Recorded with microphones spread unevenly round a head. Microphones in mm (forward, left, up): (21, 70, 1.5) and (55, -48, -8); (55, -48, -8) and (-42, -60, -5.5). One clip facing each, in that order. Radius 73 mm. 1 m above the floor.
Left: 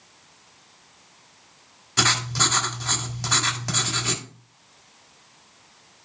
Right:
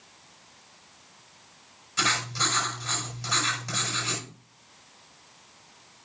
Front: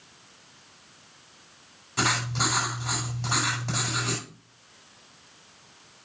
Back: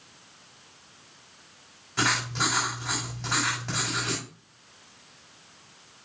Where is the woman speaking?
I don't hear a woman speaking.